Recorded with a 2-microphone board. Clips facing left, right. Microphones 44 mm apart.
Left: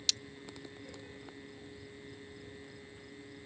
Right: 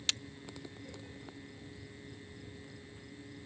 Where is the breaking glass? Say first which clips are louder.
Right 1 dB; 35° right (ahead or behind).